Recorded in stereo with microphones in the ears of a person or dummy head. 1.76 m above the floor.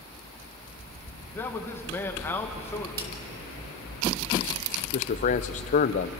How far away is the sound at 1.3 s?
About 2 m.